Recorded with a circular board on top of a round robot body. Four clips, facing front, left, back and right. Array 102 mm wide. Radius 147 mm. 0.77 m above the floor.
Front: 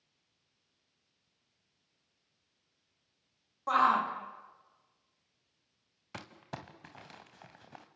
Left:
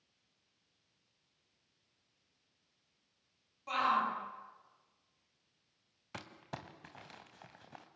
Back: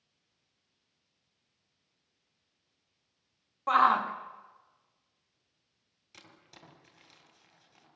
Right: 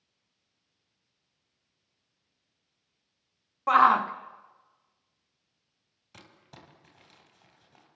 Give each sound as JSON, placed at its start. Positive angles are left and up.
{"t": 3.7, "sound": "a shout", "azimuth_deg": -105, "distance_m": 3.0}
{"t": 6.1, "sound": "crumpling", "azimuth_deg": 35, "distance_m": 2.5}